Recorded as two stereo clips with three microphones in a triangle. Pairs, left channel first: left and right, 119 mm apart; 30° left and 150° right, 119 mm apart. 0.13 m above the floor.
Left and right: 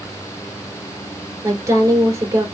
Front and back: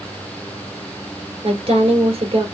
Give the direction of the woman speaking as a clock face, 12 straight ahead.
5 o'clock.